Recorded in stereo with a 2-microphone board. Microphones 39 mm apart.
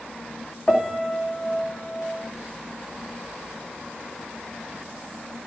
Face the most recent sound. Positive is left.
turn(degrees=20)  # may be behind; listen again after turning